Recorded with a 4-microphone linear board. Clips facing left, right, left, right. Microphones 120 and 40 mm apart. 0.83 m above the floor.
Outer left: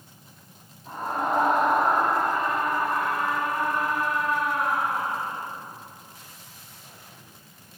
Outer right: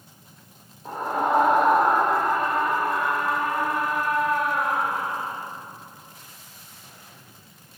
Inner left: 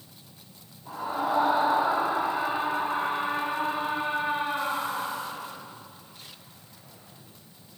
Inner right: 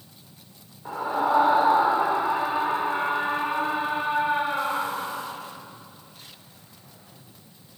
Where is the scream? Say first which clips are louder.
Outer right 3 dB, inner right 5 dB; 75° right (ahead or behind), 3 m.